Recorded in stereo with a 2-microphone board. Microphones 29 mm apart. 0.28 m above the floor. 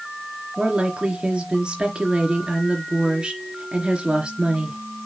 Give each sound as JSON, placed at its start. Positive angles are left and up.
{"t": 0.6, "sound": "a woman speaking", "side_deg": -35, "distance_m": 3.5}